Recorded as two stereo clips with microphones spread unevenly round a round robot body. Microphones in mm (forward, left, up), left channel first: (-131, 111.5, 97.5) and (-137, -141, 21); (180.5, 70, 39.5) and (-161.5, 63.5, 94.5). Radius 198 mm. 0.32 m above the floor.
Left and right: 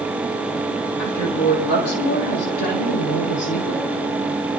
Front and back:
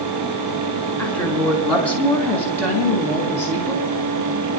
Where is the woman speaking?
85° left, 3 m; by 3.8 s 80° left, 4.5 m.